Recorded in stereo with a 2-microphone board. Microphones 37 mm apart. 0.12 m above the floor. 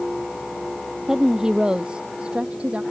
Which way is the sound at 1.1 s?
10° right (ahead or behind).